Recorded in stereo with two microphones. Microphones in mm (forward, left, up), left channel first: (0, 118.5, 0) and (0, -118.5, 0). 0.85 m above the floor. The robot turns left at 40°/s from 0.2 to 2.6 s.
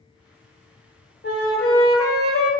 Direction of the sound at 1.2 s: 125° left.